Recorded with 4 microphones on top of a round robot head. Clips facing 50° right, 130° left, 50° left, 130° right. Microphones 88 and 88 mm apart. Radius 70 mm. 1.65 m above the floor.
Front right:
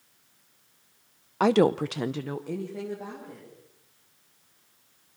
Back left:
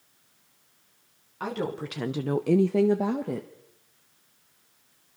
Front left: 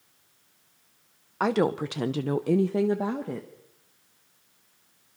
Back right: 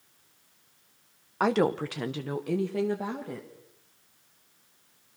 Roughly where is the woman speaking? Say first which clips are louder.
Front right 10 dB, even; ahead right.